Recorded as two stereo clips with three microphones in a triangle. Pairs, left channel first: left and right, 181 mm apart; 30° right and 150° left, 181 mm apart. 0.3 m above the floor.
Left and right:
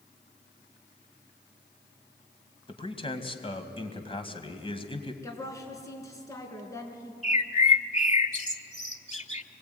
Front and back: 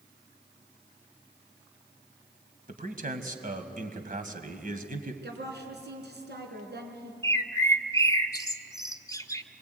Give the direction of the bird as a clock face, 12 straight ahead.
11 o'clock.